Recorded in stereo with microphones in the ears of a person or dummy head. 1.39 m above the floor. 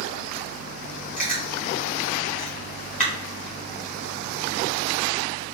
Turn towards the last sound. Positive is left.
turn(degrees=35)  # may be behind; listen again after turning